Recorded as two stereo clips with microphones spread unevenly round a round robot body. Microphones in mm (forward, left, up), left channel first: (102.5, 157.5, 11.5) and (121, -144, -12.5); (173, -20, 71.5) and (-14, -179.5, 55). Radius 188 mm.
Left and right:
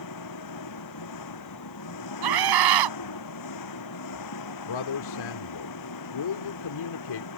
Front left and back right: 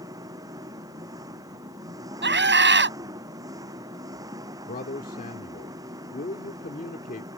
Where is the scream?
95° right.